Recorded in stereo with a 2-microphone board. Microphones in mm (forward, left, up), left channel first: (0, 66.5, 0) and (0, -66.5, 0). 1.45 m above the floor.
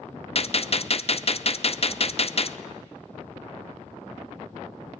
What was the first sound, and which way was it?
A gunshot, 50° left (ahead or behind).